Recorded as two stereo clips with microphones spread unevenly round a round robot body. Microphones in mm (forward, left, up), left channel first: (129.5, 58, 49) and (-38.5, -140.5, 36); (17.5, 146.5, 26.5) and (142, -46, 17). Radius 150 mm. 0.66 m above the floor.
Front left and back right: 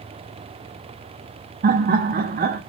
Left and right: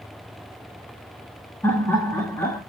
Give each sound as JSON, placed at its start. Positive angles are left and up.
{"t": 1.6, "sound": "laughter", "azimuth_deg": -160, "distance_m": 0.6}